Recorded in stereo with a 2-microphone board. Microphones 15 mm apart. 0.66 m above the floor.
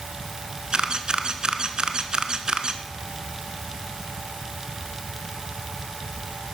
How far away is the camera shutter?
About 1.1 m.